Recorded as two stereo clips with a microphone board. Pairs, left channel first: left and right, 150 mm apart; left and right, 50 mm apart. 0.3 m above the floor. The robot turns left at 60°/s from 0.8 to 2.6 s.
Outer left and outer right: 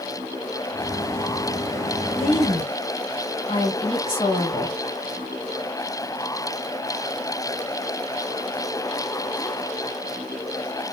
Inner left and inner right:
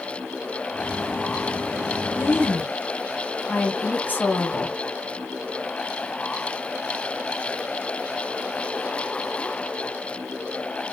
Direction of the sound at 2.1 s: 45° left (ahead or behind).